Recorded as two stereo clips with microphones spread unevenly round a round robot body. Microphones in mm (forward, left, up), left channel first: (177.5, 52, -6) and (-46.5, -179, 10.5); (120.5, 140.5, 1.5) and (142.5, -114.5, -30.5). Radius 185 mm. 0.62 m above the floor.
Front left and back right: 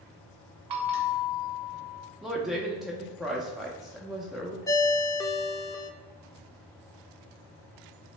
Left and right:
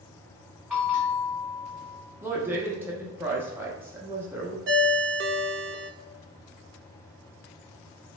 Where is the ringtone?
35° right, 0.6 m.